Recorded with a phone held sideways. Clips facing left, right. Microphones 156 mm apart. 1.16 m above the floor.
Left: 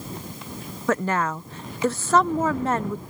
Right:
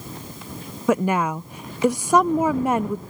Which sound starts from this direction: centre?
A woman speaking, at 0.9 s.